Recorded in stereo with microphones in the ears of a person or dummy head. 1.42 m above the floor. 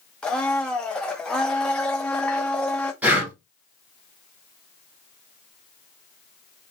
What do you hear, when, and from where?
0.2 s a blender: 5° left (ahead or behind), 0.5 m
3.0 s breathing: 10° right (ahead or behind), 1.2 m